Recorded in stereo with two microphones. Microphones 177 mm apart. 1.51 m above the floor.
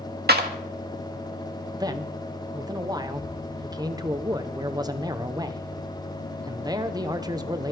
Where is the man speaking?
20° right (ahead or behind), 1.1 m.